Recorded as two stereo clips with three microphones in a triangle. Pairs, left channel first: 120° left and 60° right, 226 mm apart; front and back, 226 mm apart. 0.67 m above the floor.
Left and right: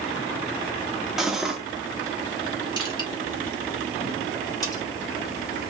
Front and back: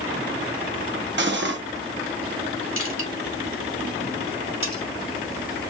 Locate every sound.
1.2 s cutlery clinking: 150° right, 0.7 m
2.8 s crushing: 170° right, 2 m
4.6 s cutlery clinking: 165° right, 2.5 m